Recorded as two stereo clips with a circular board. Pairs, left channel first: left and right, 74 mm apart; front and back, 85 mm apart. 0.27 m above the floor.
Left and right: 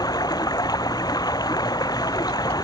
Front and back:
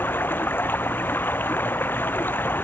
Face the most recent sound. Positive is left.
turn(degrees=65)